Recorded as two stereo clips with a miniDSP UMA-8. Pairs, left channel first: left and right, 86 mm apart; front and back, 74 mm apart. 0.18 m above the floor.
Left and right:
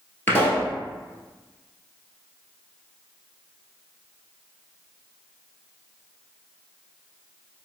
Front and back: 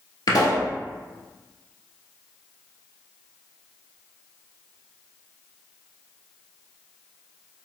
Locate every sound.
0.3 s a pop: 25° left, 1.4 m